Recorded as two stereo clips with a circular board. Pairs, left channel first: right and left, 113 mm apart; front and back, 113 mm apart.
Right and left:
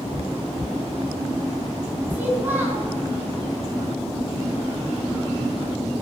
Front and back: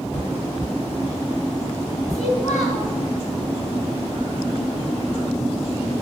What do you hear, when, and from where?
2.1 s a child speaking: 15° left, 4.5 m